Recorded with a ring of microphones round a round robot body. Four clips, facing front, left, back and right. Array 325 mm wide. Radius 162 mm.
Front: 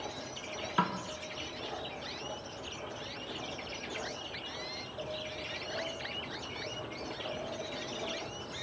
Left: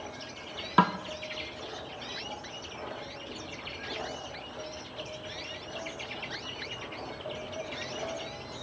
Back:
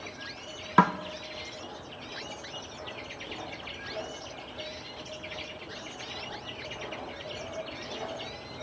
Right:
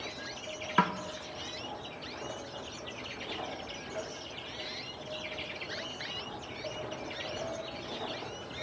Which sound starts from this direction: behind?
A snare drum, at 0.8 s.